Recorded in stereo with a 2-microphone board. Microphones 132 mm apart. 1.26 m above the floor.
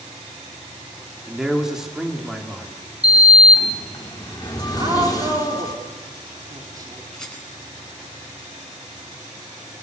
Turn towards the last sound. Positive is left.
turn(degrees=5)  # may be behind; listen again after turning